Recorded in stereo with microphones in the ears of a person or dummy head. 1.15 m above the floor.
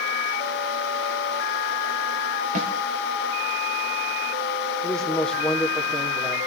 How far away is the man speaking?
About 3.5 m.